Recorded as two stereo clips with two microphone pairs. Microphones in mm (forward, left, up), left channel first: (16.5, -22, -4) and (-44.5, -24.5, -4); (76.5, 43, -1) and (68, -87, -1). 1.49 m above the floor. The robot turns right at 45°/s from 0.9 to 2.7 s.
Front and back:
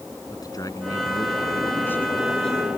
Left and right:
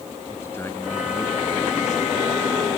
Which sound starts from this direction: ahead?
A man speaking, at 0.3 s.